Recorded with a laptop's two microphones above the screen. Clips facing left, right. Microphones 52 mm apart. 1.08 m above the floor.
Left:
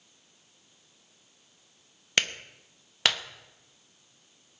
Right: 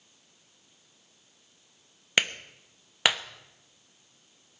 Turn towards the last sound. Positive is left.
turn(degrees=-15)  # may be behind; listen again after turning